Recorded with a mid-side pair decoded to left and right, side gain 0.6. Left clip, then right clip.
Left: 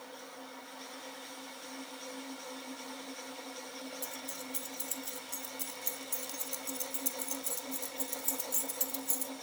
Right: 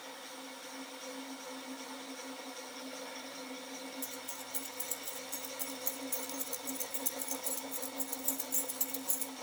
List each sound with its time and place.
4.0 s keys jangling: 5° left, 1.9 m